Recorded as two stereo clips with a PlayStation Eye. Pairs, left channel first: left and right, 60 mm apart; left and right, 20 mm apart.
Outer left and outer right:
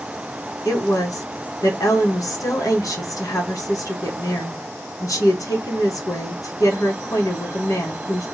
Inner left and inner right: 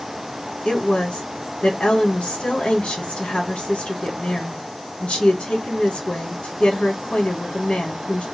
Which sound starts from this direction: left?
A woman speaking, at 0.7 s.